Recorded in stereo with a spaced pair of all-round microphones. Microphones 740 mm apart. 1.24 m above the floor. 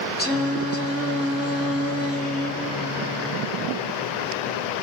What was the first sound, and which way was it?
Singing, 20° left (ahead or behind).